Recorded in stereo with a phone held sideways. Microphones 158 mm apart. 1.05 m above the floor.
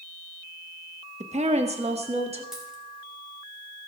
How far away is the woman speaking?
About 0.9 m.